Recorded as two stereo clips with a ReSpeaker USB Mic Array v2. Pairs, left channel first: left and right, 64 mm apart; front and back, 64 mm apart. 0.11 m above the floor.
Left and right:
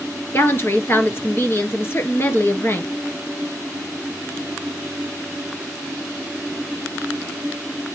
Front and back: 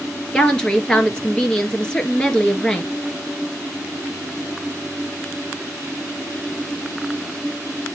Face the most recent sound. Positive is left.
turn(degrees=70)